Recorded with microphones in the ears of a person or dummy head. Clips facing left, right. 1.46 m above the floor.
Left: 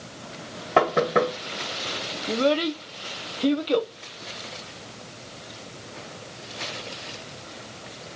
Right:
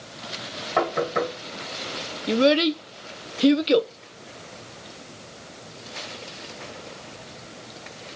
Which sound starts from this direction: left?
Knocking, at 0.8 s.